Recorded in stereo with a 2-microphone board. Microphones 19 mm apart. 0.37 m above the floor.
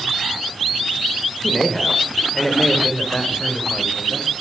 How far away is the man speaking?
About 1.1 m.